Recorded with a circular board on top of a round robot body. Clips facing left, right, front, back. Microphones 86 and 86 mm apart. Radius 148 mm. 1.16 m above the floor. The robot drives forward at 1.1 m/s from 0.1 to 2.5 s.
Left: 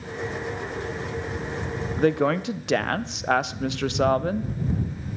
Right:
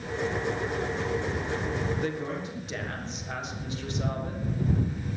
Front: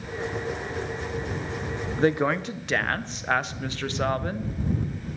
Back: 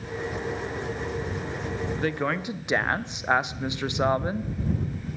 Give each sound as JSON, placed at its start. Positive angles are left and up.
{"t": 2.0, "sound": "a woman speaking", "azimuth_deg": 55, "distance_m": 0.7}